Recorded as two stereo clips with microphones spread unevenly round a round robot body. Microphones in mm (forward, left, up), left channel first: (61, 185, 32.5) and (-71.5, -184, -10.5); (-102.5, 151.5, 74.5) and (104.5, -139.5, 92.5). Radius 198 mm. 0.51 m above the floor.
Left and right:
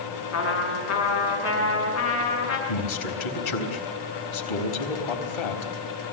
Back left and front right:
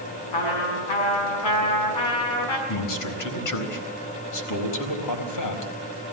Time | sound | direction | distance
0.3 | a trumpet | 125° left | 7 m
2.7 | a man speaking | 90° left | 4 m